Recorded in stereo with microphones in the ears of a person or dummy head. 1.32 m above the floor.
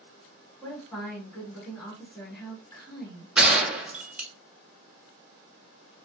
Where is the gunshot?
5° right (ahead or behind), 0.6 m.